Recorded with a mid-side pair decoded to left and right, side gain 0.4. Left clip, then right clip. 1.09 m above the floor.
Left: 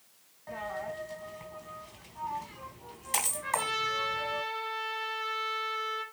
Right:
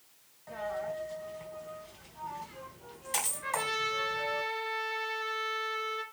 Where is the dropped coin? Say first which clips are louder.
Right 1 dB; 30° left, 3.5 m.